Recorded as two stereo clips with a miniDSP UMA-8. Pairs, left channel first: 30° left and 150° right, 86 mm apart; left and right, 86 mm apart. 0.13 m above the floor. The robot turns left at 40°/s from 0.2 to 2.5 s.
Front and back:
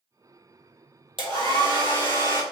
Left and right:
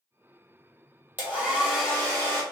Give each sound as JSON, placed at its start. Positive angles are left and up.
{"t": 1.2, "sound": "a hair dryer", "azimuth_deg": -160, "distance_m": 1.1}